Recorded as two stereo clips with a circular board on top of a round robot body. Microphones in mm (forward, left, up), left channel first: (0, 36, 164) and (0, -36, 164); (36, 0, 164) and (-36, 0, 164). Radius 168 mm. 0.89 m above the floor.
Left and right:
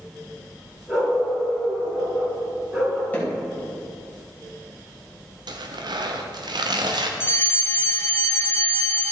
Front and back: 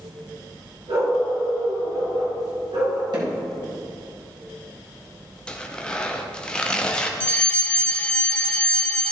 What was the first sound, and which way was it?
A dog barking, 170° right.